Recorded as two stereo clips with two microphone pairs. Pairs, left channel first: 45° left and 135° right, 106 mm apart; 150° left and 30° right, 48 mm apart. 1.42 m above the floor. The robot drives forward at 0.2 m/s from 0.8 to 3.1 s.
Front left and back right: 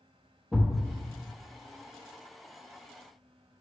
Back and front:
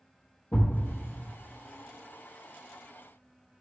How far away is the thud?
About 0.9 m.